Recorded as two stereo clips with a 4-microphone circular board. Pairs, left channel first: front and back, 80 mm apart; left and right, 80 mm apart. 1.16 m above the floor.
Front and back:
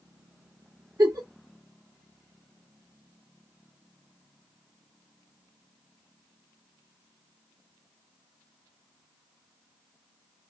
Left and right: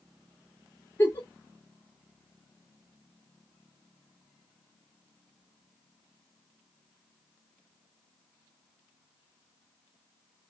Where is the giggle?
150° left, 1.3 m.